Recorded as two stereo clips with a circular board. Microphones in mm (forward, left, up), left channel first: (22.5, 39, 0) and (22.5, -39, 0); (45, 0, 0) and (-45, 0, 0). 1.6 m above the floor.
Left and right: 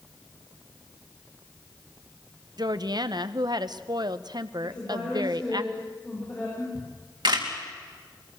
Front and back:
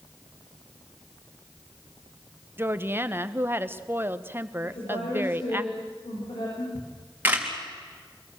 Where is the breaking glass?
No breaking glass in this recording.